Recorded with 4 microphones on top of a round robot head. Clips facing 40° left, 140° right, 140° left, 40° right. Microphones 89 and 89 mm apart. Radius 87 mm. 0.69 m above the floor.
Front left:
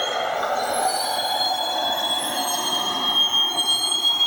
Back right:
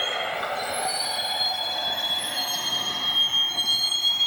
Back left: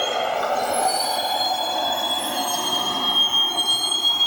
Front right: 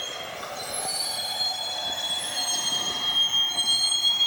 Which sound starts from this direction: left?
A vehicle, at 0.0 s.